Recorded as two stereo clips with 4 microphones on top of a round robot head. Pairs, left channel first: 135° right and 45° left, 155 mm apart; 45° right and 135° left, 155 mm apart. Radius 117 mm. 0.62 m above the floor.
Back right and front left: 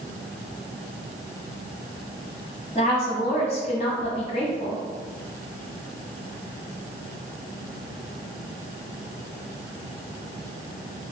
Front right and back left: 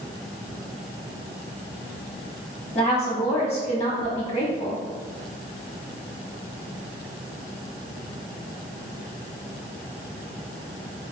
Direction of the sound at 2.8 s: 90° right.